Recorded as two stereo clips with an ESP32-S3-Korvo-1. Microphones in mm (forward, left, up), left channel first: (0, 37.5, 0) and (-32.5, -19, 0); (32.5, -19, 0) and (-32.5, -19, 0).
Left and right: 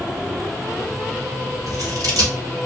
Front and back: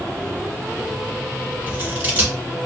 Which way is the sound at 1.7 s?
115° right.